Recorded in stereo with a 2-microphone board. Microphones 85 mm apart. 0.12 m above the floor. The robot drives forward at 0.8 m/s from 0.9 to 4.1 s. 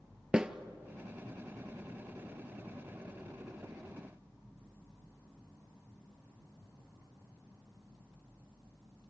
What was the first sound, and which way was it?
A snare drum, 10° right (ahead or behind).